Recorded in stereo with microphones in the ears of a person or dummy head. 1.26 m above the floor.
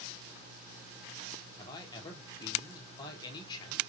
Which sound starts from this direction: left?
A man speaking, at 1.6 s.